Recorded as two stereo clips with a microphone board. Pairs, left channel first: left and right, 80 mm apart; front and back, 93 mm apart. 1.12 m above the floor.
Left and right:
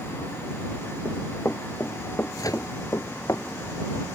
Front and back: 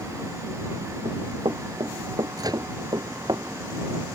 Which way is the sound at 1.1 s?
160° left.